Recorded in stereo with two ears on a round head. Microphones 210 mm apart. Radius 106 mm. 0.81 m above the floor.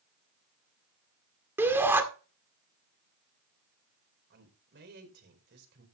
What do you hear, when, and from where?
1.6 s a shout: 10° right (ahead or behind), 1.8 m
4.3 s a man speaking: 50° right (ahead or behind), 4 m